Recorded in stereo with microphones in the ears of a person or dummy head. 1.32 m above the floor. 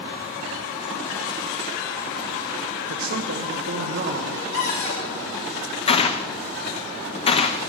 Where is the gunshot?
35° left (ahead or behind), 0.8 m.